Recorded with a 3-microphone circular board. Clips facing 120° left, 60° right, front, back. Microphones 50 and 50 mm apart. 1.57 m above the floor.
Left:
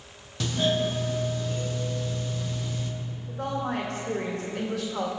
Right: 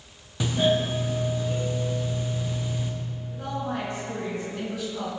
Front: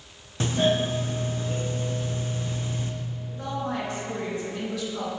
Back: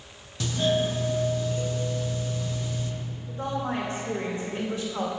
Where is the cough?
I don't hear a cough.